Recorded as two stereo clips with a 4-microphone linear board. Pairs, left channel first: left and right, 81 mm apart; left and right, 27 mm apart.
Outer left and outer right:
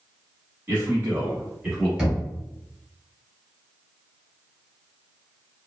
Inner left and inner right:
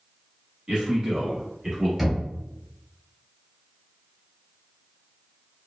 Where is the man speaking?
30° right (ahead or behind), 1.2 m; by 1.9 s 5° right (ahead or behind), 1.1 m.